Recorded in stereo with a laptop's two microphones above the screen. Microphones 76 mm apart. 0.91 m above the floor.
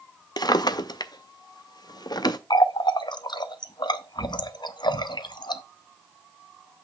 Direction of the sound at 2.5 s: 75° left (ahead or behind).